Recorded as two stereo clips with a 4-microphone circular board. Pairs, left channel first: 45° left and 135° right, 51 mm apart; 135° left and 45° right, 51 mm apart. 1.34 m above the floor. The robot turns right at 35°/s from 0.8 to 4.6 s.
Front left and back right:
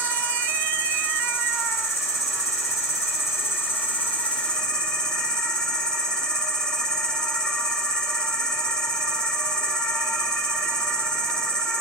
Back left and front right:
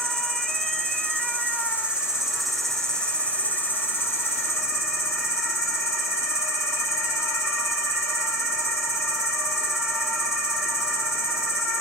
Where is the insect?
15° right, 2 m; by 11.8 s 115° left, 2 m.